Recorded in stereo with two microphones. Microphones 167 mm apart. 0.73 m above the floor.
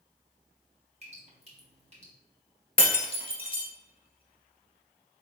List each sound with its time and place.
1.0 s dripping: 40° right (ahead or behind), 1.5 m
2.8 s breaking glass: 35° left (ahead or behind), 1.0 m